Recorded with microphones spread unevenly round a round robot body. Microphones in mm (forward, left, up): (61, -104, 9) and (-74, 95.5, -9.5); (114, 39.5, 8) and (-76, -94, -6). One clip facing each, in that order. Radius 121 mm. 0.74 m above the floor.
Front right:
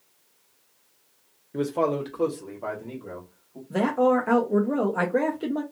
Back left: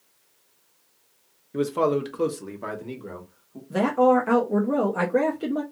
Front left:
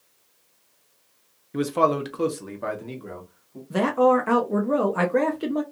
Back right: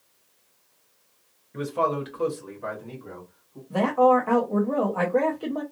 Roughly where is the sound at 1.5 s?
Ahead left.